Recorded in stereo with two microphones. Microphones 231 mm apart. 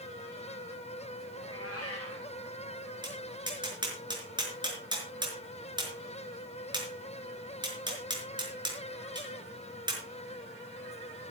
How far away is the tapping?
About 5 m.